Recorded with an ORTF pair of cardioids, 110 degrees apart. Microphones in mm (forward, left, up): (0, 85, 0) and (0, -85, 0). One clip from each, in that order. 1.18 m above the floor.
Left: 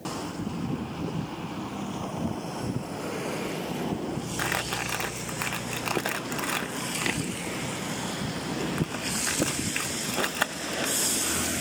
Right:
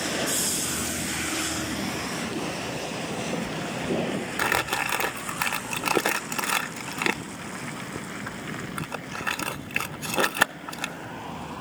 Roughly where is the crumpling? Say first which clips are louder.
Right 5 dB; ahead.